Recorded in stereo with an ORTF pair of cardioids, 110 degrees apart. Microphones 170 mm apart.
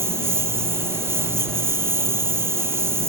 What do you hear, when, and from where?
0.0 s a lawn mower: 15° right